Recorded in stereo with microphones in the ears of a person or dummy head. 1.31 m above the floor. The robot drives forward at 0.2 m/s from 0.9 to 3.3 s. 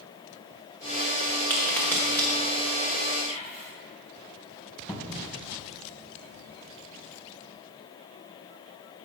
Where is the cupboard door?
20° left (ahead or behind), 0.7 m.